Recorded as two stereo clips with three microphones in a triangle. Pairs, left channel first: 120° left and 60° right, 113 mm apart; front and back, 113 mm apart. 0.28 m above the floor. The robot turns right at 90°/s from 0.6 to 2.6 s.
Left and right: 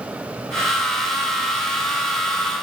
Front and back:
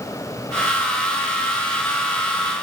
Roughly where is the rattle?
I don't hear a rattle.